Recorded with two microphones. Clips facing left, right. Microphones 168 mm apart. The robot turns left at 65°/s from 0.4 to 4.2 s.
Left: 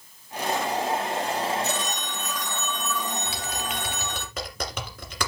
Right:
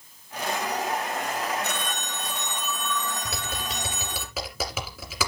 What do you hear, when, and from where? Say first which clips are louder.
1.6 s a phone ringing: left 2 dB; 105° right, 1.8 m; by 4.2 s 90° left, 1.8 m
3.2 s typing on a keyboard: left 1 dB; 65° right (ahead or behind), 2.5 m; by 5.3 s 5° right (ahead or behind), 2.5 m